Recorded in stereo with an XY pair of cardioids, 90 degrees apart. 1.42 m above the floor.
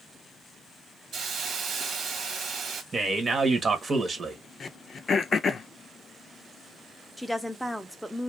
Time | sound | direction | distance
1.1 | a hiss | 70° right | 1.3 m
2.9 | a man speaking | 40° right | 1.0 m
4.6 | throat clearing | 50° left | 0.5 m
7.2 | a woman speaking | straight ahead | 0.8 m